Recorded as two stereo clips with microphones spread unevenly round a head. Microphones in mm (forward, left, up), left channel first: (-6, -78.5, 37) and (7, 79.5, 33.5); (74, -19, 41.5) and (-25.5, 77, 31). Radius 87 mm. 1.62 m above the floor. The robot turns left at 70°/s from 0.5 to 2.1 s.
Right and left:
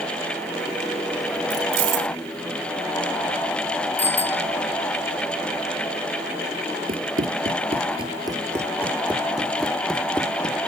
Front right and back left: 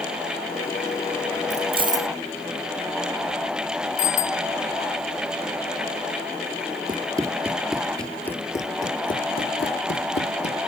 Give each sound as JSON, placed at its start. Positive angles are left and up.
{"t": 1.5, "sound": "keys jangling", "azimuth_deg": 105}
{"t": 4.0, "sound": "a bicycle bell", "azimuth_deg": -15}
{"t": 6.9, "sound": "running footsteps", "azimuth_deg": 85}